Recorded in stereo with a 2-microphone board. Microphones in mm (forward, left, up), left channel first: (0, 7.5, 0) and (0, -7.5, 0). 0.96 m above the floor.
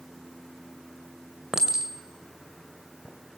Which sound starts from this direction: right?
A clink, at 1.5 s.